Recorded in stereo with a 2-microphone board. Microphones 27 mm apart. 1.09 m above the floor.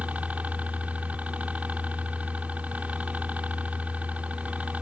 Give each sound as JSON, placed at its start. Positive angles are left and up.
{"t": 0.0, "sound": "a helicopter", "side_deg": -65}